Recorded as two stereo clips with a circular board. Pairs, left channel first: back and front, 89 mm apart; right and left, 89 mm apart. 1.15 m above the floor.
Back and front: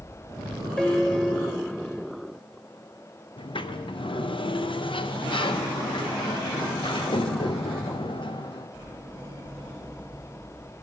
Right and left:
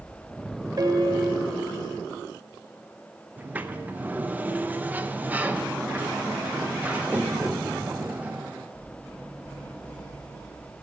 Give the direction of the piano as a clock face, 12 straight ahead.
9 o'clock.